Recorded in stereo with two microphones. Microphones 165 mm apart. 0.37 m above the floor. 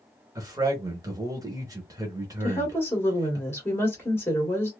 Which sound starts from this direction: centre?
A woman speaking, at 2.4 s.